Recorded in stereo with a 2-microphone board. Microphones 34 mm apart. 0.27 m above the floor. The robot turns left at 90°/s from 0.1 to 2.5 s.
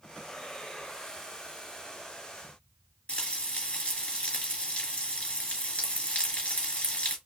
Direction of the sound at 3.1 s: 40° left (ahead or behind).